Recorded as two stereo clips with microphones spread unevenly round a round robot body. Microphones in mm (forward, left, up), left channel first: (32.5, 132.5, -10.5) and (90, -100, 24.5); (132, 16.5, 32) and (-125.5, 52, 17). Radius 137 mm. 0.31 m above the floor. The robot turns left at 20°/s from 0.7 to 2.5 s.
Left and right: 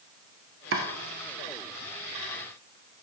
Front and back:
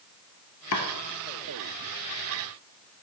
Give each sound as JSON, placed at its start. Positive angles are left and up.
{"t": 0.7, "sound": "chopping", "azimuth_deg": -45, "distance_m": 1.1}